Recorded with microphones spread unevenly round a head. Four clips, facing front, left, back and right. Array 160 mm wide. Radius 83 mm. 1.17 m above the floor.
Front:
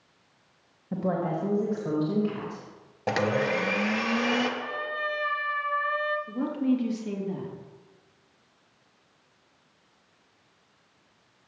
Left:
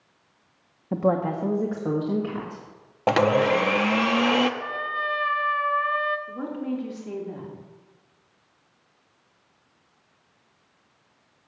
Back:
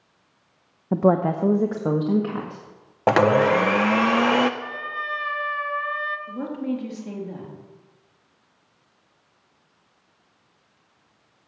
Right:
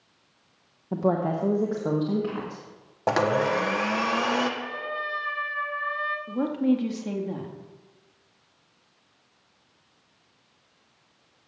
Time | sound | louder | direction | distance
0.9 | a woman speaking | left 1 dB, back 9 dB | 175° left | 0.8 m
3.1 | a blender | left 3 dB, back 9 dB | straight behind | 0.7 m
4.6 | a trumpet | left 3 dB, even | 100° left | 0.8 m
6.3 | a woman speaking | right 6 dB, front 3 dB | 90° right | 3 m